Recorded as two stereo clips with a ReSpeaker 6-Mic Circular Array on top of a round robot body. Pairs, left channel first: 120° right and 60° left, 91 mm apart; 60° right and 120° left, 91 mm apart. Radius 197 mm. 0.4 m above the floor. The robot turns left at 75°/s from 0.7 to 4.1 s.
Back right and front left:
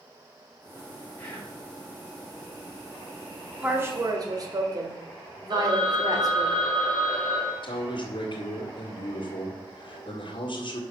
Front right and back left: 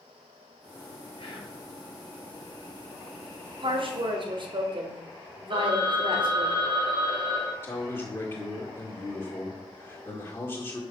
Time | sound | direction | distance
1.2 | whispering | 40° right | 4 m
3.6 | a woman speaking | 135° left | 2.0 m
5.5 | a phone ringing | 95° left | 2.5 m
7.6 | a man speaking | 115° right | 1.9 m